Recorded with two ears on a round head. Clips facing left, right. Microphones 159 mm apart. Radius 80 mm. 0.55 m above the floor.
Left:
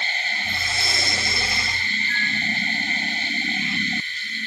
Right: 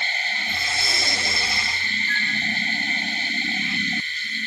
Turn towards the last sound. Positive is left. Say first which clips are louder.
# even
turn(degrees=-45)  # may be behind; listen again after turning